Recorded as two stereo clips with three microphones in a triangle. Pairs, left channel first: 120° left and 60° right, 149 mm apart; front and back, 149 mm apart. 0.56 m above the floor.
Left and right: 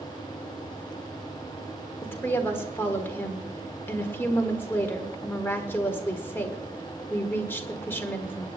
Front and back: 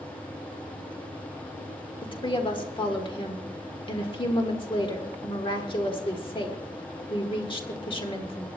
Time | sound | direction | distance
2.0 | a woman speaking | 50° left | 1.5 m